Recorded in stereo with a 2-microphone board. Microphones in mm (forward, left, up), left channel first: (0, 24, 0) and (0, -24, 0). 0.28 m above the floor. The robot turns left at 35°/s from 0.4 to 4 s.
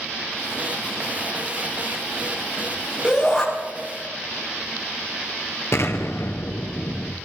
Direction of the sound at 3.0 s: 20° right (ahead or behind).